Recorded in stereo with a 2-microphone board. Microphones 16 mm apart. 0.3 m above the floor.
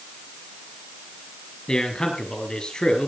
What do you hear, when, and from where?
1.7 s a man speaking: 60° left (ahead or behind), 5.5 m